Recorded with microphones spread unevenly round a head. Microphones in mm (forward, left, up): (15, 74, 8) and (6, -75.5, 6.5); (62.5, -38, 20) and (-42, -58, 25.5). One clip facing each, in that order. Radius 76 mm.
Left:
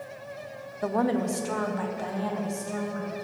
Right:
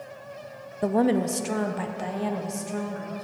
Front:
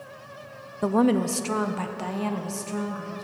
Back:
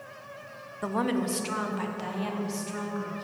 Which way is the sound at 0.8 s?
40° right.